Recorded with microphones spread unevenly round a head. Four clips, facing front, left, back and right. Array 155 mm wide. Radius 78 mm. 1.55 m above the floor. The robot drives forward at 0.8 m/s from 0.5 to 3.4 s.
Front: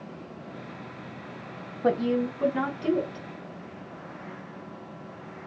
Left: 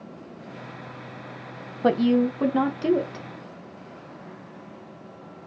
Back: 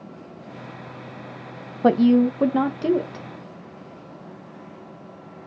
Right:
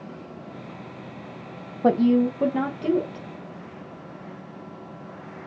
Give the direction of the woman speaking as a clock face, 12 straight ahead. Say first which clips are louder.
Right 1 dB, back 9 dB; 5 o'clock.